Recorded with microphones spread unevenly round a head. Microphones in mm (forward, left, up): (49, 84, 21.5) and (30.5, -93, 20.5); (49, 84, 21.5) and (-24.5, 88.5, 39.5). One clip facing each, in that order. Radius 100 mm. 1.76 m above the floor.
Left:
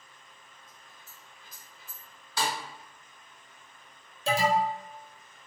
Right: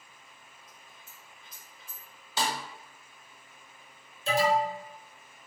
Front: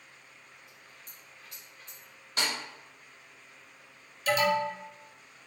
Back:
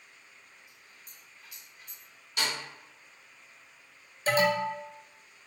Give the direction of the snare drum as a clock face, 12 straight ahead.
2 o'clock.